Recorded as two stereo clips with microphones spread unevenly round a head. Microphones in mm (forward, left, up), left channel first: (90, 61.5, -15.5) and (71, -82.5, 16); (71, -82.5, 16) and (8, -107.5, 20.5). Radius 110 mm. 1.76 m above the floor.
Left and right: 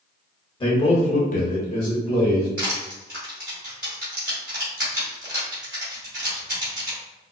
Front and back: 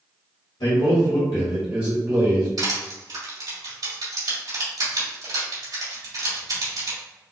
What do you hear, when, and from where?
0.6 s a man speaking: 20° left, 1.5 m; by 2.5 s 160° left, 1.5 m
2.6 s crushing: 175° right, 1.9 m